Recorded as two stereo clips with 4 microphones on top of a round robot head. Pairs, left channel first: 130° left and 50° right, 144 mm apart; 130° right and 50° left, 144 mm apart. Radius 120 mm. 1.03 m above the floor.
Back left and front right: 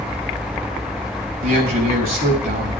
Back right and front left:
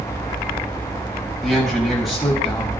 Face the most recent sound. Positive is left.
turn(degrees=-40)